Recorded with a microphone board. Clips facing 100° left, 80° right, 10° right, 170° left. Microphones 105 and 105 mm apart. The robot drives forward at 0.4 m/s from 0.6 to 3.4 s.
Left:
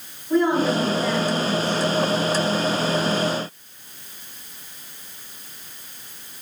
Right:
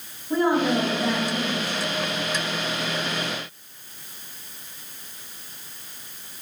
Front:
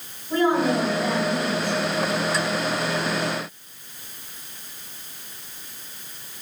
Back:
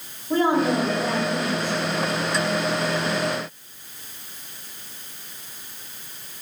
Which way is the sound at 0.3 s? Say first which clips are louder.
Left 2 dB, even; 160° right.